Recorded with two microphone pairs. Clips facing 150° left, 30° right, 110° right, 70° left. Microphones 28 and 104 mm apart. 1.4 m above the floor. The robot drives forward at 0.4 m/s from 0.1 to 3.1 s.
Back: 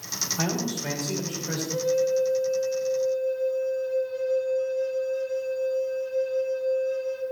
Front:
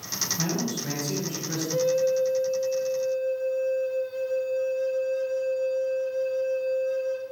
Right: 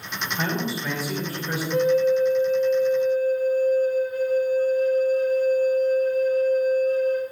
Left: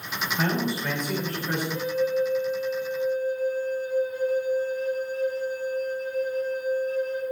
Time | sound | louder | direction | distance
0.4 | a man speaking | back 2 dB, left 1 dB | 165° left | 2.5 m
1.7 | a flute | front 1 dB, right 8 dB | 105° right | 0.8 m